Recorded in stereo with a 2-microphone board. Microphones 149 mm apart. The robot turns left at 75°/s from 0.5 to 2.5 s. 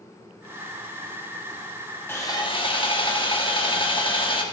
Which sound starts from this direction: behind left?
Sawing, at 2.1 s.